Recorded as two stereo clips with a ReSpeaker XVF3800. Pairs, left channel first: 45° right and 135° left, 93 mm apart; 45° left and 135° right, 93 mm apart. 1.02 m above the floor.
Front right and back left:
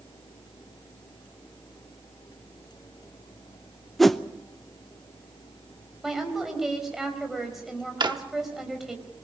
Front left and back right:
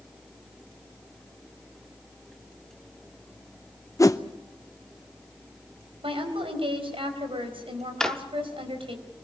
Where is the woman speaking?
140° right, 4.5 m.